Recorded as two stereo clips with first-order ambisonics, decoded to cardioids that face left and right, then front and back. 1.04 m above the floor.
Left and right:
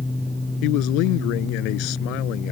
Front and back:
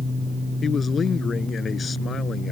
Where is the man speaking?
65° left.